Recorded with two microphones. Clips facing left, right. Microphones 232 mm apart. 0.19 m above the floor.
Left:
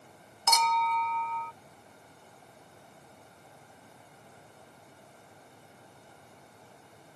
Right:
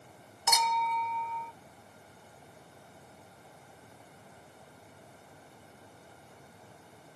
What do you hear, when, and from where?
0.5 s a clink: 10° right (ahead or behind)